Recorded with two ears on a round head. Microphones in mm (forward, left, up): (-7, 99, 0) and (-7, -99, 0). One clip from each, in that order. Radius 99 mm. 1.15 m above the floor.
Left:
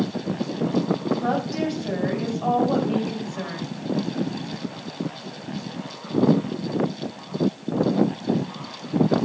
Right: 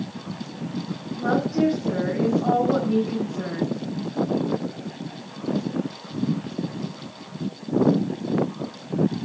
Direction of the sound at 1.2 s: 50° left (ahead or behind).